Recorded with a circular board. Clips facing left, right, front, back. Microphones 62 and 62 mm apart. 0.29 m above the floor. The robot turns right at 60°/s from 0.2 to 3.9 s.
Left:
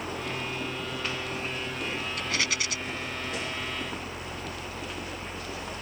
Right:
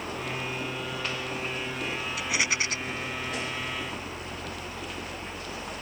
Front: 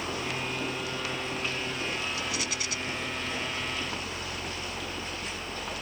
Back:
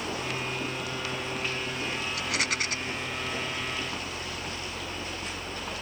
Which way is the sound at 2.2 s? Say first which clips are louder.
Right 3 dB, back 3 dB; 175° right.